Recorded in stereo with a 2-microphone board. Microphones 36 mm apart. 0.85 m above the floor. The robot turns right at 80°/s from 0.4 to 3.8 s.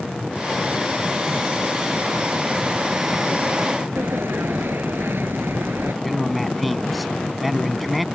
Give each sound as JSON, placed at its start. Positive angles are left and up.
{"t": 4.0, "sound": "a sliding door", "side_deg": -80}
{"t": 6.0, "sound": "a man speaking", "side_deg": 0}